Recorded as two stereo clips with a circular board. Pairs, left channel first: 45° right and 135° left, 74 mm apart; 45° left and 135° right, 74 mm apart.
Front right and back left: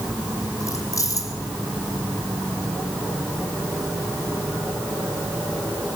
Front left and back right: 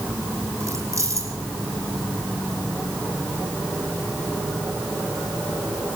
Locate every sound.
0.6 s keys jangling: 90° right, 6 m